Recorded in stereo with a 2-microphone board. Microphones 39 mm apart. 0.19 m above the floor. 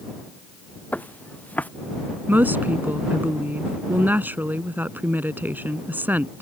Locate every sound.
0.9 s footsteps: 40° left (ahead or behind)
2.3 s a woman speaking: 50° right (ahead or behind)